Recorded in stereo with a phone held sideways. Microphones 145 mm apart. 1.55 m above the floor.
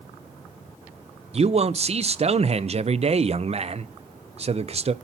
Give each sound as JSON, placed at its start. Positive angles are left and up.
{"t": 1.3, "sound": "a man speaking", "side_deg": -45, "distance_m": 0.5}